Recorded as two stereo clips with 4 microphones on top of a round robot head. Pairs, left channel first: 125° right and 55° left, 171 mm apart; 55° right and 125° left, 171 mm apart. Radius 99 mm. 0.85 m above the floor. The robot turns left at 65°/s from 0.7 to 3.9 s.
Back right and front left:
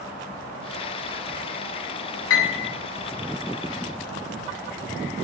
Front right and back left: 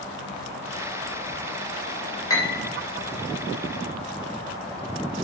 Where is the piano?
125° right, 3 m; by 2.7 s 155° right, 3 m.